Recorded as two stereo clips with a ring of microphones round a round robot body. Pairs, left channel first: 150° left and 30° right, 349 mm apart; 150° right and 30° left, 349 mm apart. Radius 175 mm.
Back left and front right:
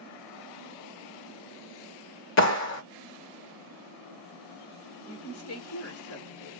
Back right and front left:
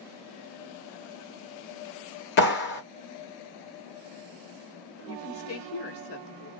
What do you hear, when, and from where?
2.4 s a clap: 175° left, 0.8 m
5.0 s a woman speaking: straight behind, 1.1 m